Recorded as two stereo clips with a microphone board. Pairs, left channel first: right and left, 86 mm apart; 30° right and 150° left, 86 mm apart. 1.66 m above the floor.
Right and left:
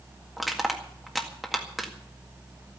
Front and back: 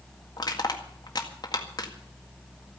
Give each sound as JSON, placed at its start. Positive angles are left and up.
{"t": 0.4, "sound": "crushing", "azimuth_deg": 5, "distance_m": 1.8}